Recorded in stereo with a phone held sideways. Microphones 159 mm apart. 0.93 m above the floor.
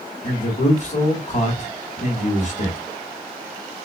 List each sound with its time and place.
0.2 s a man speaking: 45° left (ahead or behind), 1.8 m